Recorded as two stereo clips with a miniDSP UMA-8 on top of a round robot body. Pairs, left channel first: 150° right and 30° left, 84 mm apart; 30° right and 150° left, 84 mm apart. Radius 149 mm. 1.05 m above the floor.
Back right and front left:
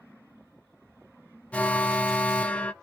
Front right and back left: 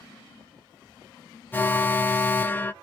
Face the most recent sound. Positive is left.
turn(degrees=-85)